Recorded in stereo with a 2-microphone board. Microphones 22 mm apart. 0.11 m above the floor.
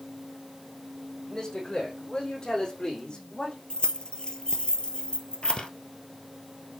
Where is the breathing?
50° left (ahead or behind), 1.2 m.